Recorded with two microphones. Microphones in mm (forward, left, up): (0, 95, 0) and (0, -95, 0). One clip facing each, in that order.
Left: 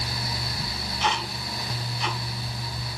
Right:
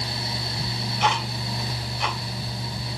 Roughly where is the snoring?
No snoring in this recording.